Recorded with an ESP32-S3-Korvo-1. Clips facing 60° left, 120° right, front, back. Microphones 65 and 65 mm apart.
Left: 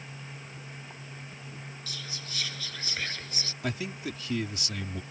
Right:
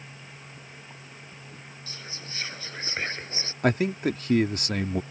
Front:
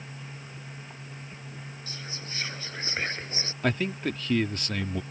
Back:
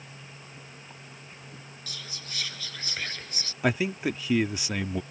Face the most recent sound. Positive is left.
turn(degrees=-100)